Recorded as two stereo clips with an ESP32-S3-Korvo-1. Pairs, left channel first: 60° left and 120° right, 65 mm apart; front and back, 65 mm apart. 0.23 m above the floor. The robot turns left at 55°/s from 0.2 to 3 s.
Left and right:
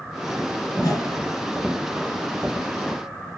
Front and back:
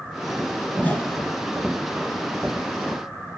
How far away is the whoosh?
About 3 m.